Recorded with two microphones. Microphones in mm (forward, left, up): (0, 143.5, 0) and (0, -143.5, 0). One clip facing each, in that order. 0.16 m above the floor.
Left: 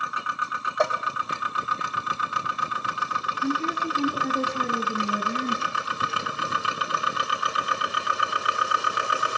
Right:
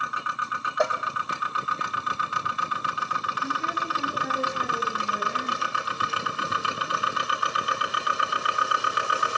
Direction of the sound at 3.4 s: 40° left (ahead or behind).